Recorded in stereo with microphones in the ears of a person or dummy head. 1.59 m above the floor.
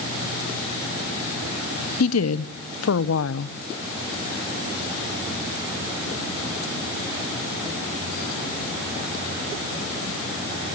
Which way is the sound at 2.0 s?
75° left (ahead or behind).